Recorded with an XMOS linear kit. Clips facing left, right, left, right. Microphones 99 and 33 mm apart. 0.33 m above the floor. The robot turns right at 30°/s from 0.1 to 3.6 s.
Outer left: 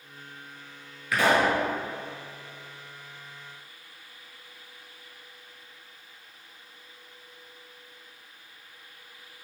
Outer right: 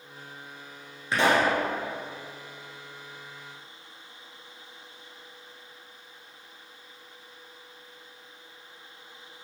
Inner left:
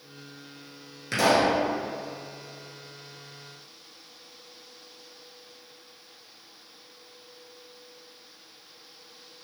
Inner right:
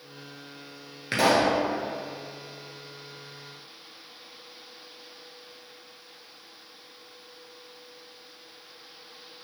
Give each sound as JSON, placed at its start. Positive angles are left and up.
{"t": 1.1, "sound": "a pop", "side_deg": -30, "distance_m": 1.1}